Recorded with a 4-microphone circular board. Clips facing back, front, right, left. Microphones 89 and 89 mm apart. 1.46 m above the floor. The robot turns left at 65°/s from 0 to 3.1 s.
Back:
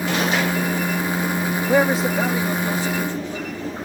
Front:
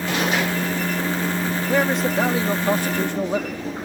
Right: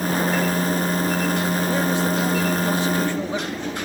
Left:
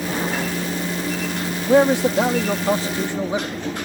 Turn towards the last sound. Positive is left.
turn(degrees=20)